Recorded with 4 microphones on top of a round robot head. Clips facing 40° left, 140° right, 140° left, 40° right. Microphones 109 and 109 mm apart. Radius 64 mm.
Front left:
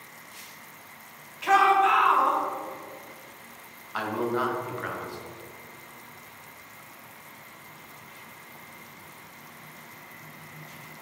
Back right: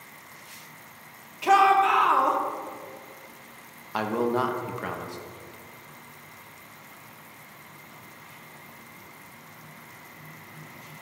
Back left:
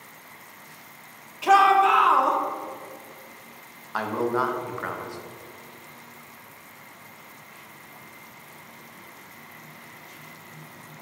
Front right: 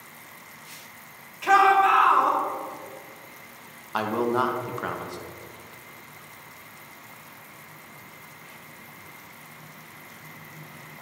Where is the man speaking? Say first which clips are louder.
Back right 3 dB, front right 1 dB; 115° right, 0.8 m.